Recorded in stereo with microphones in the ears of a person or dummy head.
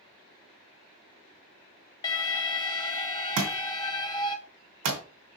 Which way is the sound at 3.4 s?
40° right (ahead or behind).